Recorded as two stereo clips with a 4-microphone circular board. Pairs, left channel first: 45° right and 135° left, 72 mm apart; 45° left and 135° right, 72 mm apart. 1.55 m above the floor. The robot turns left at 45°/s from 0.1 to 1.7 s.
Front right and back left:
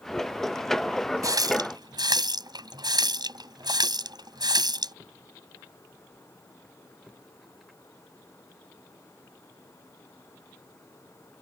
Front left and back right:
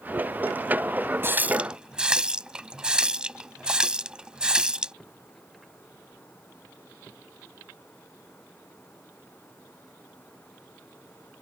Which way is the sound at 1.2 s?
170° left.